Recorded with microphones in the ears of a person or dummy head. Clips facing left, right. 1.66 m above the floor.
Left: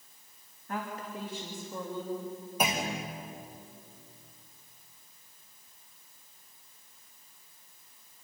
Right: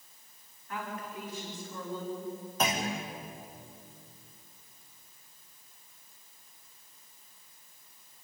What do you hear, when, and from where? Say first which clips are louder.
0.7 s a woman speaking: left 2 dB; 50° left (ahead or behind), 3.5 m; by 2.3 s 20° left (ahead or behind), 4 m
2.6 s a clunk: even; 20° left (ahead or behind), 2 m